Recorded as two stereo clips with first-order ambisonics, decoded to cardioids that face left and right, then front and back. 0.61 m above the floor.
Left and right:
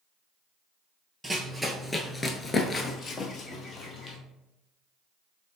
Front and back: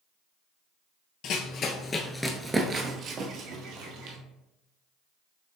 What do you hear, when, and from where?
1.2 s running footsteps: 10° right, 0.7 m; by 4.2 s 155° left, 1.1 m